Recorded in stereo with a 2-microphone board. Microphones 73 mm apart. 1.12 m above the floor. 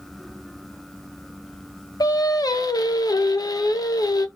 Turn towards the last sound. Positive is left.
turn(degrees=55)  # may be behind; listen again after turning